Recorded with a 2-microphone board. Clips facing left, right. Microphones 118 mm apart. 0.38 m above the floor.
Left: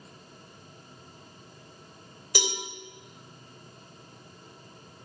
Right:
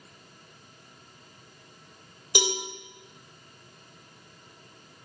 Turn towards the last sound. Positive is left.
turn(degrees=-20)  # may be behind; listen again after turning